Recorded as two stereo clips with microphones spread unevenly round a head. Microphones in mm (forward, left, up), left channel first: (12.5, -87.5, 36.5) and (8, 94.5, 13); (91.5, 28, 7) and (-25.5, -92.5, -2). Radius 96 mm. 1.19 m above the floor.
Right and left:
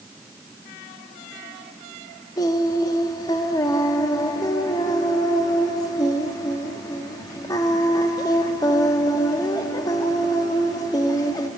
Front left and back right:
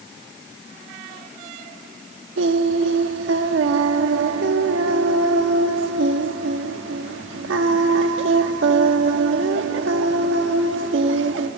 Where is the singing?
155° right, 1.2 m.